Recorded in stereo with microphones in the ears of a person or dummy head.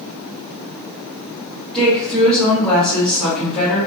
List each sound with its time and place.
1.7 s a woman speaking: centre (ahead or behind), 1.4 m